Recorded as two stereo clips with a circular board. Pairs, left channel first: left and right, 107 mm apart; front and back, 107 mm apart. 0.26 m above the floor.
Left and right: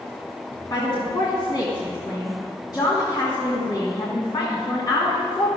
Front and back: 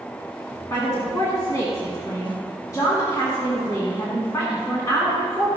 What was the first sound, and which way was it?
A woman speaking, 50° left.